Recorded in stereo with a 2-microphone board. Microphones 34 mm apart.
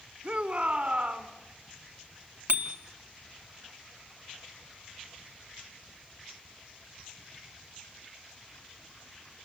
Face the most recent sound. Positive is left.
turn(degrees=-70)  # may be behind; listen again after turning